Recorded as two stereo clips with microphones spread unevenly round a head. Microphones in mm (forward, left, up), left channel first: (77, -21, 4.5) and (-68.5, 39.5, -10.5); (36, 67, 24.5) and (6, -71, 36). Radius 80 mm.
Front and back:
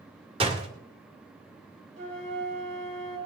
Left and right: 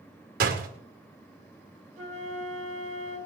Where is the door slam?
140° right, 1.9 m.